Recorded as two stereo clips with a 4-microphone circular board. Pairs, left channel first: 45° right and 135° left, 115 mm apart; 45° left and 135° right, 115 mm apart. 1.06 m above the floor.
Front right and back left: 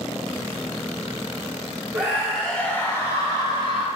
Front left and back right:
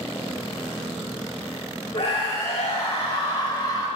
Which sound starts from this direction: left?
A scream, at 1.9 s.